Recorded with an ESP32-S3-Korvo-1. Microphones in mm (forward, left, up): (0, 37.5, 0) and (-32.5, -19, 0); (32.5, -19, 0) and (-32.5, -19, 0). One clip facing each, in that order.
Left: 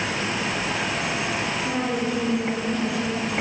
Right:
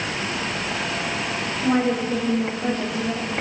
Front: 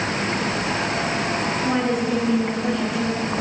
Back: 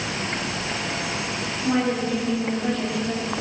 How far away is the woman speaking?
About 10 m.